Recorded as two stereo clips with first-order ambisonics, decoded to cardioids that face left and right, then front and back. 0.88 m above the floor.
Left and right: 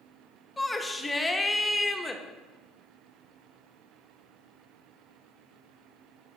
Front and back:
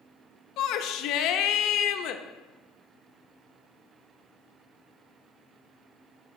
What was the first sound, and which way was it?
A shout, 10° left.